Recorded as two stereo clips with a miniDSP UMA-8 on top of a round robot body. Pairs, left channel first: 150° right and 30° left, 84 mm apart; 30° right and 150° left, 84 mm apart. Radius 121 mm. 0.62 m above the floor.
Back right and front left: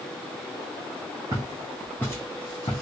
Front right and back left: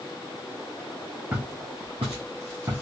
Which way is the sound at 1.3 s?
75° left.